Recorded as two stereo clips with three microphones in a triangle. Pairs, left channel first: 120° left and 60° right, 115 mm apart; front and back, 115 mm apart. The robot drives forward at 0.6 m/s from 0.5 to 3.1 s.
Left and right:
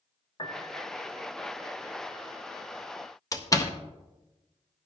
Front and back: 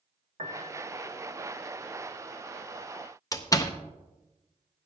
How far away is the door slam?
About 0.8 m.